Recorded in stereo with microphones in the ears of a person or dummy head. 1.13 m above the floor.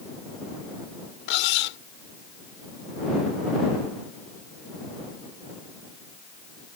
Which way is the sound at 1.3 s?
75° left (ahead or behind).